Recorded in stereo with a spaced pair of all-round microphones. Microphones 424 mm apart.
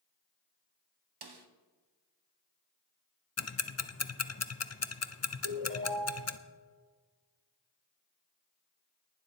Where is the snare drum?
65° right (ahead or behind), 0.9 m.